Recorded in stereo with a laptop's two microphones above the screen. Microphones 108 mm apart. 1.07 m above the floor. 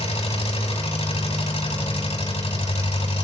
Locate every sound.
0.0 s an engine running: 75° left (ahead or behind), 5.5 m